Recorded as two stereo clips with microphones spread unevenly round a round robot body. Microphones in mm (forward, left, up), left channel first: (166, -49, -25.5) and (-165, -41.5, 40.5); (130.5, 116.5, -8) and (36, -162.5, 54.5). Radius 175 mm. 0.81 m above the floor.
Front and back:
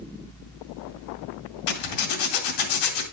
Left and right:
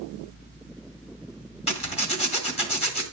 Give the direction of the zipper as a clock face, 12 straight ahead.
12 o'clock.